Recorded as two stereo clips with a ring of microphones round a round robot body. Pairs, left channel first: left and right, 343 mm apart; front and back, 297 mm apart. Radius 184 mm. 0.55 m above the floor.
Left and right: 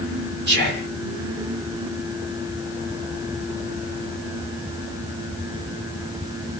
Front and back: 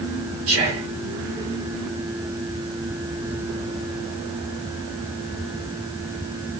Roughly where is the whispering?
Behind right.